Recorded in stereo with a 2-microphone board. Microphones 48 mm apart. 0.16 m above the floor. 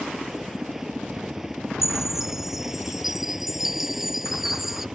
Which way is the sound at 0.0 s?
10° right (ahead or behind).